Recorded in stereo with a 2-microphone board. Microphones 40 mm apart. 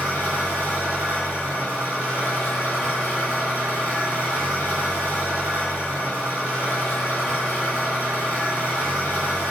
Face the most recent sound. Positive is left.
turn(degrees=80)